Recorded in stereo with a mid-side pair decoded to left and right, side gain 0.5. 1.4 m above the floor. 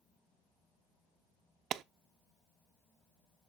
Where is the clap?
60° right, 0.5 m.